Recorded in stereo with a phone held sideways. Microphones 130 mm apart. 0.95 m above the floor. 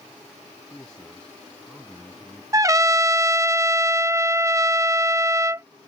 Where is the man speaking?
10° left (ahead or behind); by 2.4 s centre (ahead or behind).